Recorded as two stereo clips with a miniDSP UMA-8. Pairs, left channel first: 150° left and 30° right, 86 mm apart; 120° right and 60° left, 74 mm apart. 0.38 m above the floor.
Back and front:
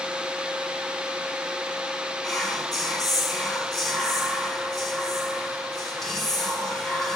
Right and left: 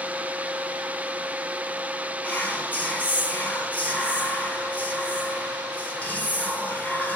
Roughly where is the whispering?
Behind right.